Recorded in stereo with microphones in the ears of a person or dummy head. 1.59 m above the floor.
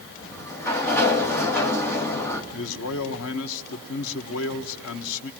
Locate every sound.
0.2 s a sliding door: 10° left (ahead or behind), 1.8 m
2.5 s a man speaking: 80° left, 1.4 m